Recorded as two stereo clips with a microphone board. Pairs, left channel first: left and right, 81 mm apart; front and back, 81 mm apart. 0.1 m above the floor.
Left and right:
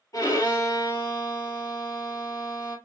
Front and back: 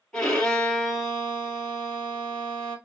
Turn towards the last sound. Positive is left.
turn(degrees=75)